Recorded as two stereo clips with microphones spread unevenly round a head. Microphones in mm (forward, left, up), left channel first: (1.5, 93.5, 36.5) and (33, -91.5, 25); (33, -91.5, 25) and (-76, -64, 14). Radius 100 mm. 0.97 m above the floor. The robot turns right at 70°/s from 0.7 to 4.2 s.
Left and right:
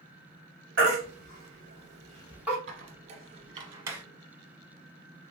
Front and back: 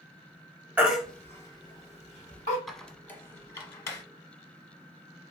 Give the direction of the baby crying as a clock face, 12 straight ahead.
4 o'clock.